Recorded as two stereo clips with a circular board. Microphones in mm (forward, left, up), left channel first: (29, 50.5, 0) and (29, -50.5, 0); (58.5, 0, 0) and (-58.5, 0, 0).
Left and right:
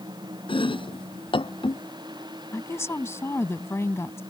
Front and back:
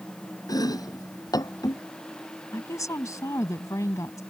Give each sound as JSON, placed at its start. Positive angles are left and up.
{"t": 0.5, "sound": "chopping", "azimuth_deg": 60}
{"t": 2.5, "sound": "a woman speaking", "azimuth_deg": 45}